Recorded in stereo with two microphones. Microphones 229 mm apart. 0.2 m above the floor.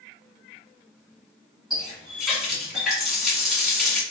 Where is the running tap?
Centre (ahead or behind), 1.2 m.